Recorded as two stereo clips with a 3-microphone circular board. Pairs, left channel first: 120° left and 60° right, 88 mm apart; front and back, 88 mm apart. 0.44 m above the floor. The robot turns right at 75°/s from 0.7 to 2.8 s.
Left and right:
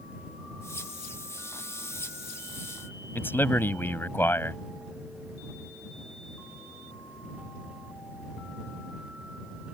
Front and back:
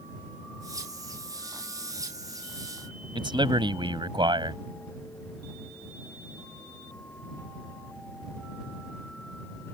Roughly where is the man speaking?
Behind.